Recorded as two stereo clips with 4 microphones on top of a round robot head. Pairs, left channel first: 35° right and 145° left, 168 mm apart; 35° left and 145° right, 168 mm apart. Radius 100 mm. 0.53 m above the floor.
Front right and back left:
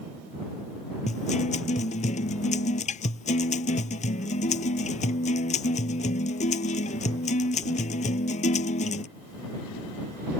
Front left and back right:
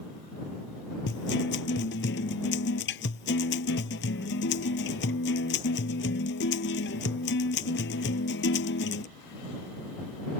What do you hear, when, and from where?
1.1 s a guitar: 15° left